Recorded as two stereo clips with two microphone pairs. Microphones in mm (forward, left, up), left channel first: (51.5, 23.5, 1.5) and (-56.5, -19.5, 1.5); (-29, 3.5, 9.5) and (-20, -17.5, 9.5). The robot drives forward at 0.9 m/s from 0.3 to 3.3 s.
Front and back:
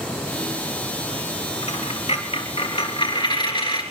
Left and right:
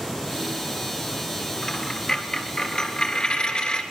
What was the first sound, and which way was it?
A dropped coin, 45° left.